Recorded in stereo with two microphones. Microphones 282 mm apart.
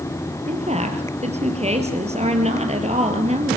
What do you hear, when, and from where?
0.5 s a woman speaking: 20° right (ahead or behind), 3 m